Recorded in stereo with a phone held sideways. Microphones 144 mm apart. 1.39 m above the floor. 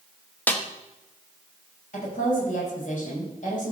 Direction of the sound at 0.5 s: 10° left (ahead or behind).